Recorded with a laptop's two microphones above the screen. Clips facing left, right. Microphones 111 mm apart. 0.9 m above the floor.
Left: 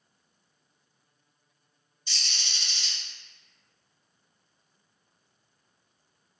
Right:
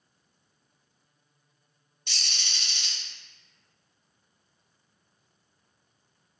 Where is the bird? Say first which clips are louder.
Right 1 dB; 60° right (ahead or behind), 0.6 m.